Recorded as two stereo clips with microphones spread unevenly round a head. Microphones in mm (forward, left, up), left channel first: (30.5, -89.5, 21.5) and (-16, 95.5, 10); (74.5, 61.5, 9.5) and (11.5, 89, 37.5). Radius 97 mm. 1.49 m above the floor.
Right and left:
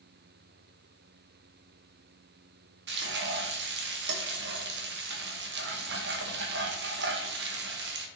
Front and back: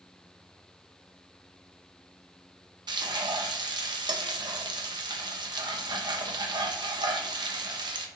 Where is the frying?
140° left, 1.1 m.